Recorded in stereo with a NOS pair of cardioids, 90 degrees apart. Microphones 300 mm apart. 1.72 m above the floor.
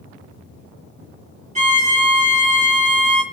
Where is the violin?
25° right, 2.5 m.